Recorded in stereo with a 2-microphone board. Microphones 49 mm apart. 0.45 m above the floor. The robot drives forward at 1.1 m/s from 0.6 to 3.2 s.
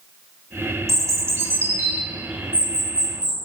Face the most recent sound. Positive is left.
turn(degrees=-20)  # may be behind; listen again after turning